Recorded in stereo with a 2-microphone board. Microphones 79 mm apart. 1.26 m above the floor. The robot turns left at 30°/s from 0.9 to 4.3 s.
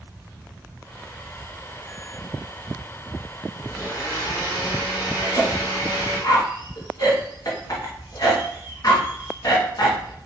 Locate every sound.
3.6 s a blender: 35° left (ahead or behind), 1.5 m; by 6.2 s 45° left (ahead or behind), 1.5 m
5.2 s a cough: 55° left (ahead or behind), 0.9 m